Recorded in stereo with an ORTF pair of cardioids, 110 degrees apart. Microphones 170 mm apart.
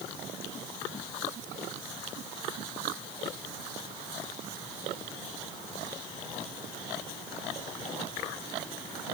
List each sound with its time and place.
Only background noise.